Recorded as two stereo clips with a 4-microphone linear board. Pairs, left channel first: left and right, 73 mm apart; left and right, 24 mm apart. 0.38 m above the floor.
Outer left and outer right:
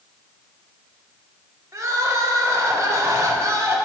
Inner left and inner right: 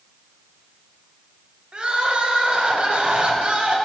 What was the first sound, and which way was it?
Crying, 45° right (ahead or behind).